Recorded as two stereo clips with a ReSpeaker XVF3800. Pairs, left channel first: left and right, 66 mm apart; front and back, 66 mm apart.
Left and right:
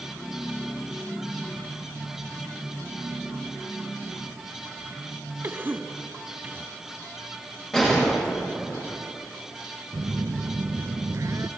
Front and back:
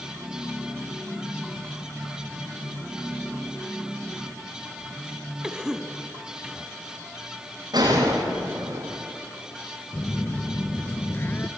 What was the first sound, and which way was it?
A cough, 105° right.